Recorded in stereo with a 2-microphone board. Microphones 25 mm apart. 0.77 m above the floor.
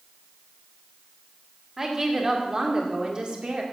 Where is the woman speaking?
20° right (ahead or behind), 2 m; by 3.6 s 45° right (ahead or behind), 1.9 m.